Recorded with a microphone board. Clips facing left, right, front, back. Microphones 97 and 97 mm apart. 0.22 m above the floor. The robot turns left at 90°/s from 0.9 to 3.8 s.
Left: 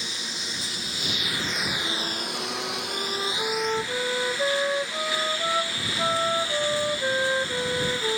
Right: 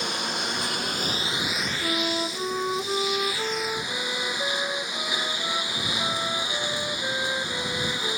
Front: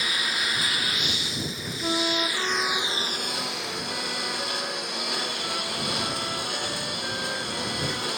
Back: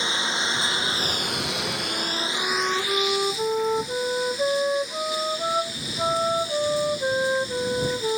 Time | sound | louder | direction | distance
0.0 | a lawn mower | right 7 dB, back 3 dB | 115° right | ?
1.8 | a flute | right 5 dB, front 3 dB | 35° right | ?